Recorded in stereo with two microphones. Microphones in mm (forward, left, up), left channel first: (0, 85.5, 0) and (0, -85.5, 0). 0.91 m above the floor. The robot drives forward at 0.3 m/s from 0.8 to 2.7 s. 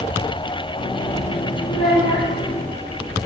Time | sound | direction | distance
1.7 | a child speaking | 40° left (ahead or behind) | 2.5 m